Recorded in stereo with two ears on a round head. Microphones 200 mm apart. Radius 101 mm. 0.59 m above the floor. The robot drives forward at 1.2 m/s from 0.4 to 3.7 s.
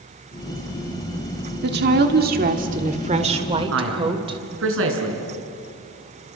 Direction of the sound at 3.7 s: 65° right (ahead or behind).